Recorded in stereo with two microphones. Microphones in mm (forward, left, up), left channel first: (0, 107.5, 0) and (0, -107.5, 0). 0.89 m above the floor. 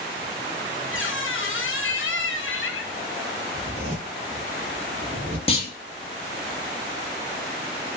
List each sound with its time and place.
0.9 s a squeak: 75° left (ahead or behind), 0.8 m
3.5 s a zipper: 30° right (ahead or behind), 1.7 m
5.5 s a clunk: 25° left (ahead or behind), 0.7 m